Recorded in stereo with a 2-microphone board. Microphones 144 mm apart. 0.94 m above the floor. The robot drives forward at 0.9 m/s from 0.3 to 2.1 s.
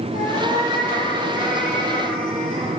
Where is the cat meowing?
60° left (ahead or behind), 8.5 m; by 2.7 s 70° left (ahead or behind), 8 m.